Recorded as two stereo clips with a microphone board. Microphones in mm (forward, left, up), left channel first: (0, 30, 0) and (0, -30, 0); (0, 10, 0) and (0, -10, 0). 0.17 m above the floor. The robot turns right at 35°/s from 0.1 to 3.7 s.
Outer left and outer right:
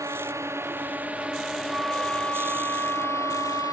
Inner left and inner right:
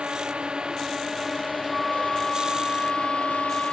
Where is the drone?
65° right (ahead or behind); by 3.7 s 70° left (ahead or behind).